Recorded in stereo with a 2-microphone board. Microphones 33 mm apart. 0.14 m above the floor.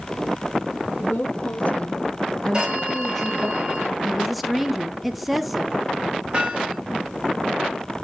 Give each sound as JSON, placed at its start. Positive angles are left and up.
{"t": 1.0, "sound": "a woman speaking", "side_deg": 60, "distance_m": 2.5}
{"t": 2.5, "sound": "a phone ringing", "side_deg": -25, "distance_m": 7.0}
{"t": 4.0, "sound": "a woman speaking", "side_deg": 0, "distance_m": 1.1}
{"t": 6.3, "sound": "hammering", "side_deg": -25, "distance_m": 4.5}